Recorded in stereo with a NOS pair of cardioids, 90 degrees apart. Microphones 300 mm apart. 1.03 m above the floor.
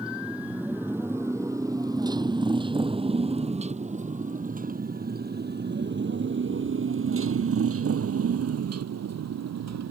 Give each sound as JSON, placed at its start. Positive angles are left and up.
{"t": 0.0, "sound": "a motorcycle", "azimuth_deg": -5}